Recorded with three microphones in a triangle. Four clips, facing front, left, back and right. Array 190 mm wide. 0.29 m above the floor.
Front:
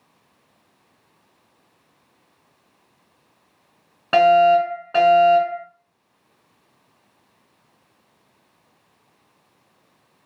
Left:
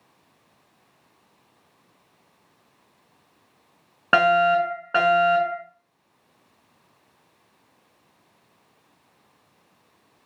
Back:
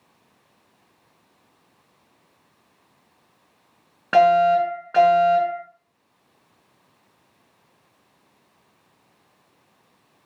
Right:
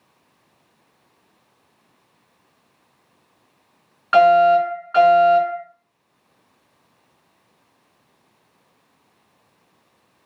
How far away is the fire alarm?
About 5.5 m.